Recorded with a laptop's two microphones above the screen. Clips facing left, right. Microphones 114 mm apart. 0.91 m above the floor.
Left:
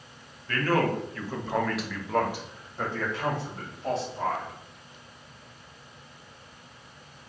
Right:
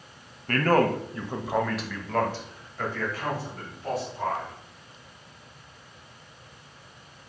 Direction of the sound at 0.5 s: 55° right (ahead or behind).